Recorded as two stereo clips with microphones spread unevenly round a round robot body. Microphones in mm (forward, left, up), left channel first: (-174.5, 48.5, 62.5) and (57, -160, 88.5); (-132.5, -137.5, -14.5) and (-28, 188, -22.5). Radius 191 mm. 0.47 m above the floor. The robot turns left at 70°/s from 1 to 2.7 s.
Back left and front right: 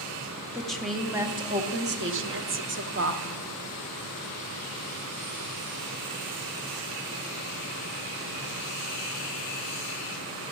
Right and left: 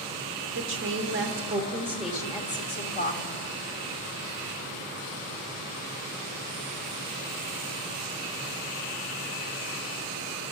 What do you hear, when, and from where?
0.5 s a woman speaking: 55° left, 1.0 m; by 3.2 s 65° right, 1.0 m